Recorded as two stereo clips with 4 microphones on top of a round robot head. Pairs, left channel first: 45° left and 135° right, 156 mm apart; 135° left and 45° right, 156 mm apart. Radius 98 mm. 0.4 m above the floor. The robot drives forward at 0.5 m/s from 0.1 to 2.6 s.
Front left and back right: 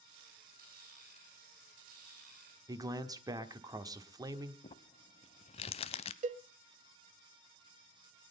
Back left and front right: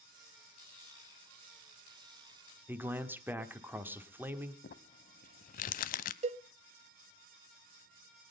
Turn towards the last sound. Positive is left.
turn(degrees=-95)